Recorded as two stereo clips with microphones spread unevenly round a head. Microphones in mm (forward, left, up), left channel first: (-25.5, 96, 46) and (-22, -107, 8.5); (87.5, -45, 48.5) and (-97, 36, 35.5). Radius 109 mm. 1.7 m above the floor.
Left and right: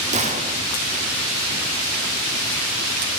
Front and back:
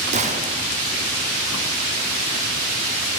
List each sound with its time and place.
0.1 s a gunshot: 145° right, 0.9 m